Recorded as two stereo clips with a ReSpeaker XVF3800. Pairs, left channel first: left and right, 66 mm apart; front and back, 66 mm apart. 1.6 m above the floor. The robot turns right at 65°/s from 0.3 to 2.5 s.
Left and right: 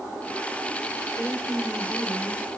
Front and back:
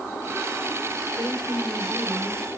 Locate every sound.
1.1 s a woman speaking: 145° left, 5 m; by 2.5 s 130° right, 5 m